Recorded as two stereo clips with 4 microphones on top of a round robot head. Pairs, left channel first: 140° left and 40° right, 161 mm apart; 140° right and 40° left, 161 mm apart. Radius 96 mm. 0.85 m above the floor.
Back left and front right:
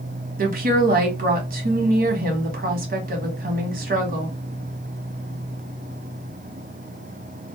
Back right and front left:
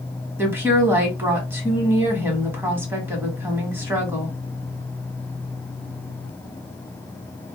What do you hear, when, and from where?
0.4 s a woman speaking: 35° right, 1.3 m